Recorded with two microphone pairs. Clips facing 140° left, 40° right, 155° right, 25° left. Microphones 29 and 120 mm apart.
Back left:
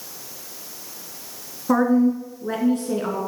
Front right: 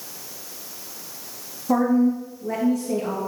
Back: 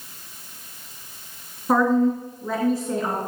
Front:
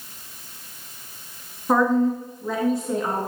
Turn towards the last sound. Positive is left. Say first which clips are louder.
# back left 1 dB, back 1 dB
turn(degrees=120)